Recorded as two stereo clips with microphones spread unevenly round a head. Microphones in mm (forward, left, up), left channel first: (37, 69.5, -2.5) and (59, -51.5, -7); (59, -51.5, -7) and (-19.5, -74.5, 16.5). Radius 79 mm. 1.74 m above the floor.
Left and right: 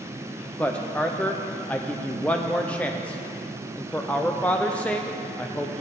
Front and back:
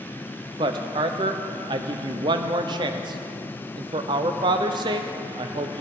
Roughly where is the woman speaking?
Behind.